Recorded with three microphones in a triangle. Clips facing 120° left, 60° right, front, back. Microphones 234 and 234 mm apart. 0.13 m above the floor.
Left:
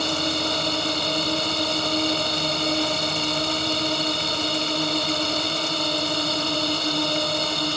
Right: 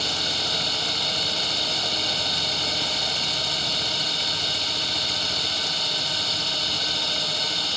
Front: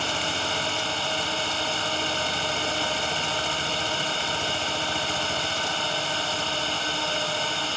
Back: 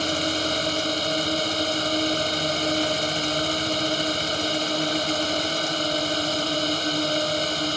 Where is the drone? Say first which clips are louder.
Left 8 dB, back 6 dB; 135° left.